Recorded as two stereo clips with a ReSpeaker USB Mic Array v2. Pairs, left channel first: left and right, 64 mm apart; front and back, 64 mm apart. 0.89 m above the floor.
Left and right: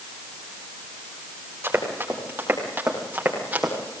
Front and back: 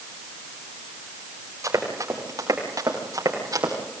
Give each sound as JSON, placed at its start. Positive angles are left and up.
{"t": 1.6, "sound": "running footsteps", "azimuth_deg": -145, "distance_m": 8.5}